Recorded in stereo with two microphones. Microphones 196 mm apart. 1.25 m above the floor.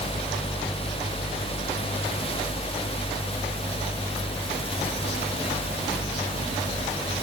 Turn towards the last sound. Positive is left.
No sound to turn to.